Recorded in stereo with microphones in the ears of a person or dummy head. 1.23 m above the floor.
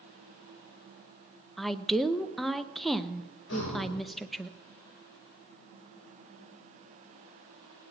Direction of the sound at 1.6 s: Centre (ahead or behind).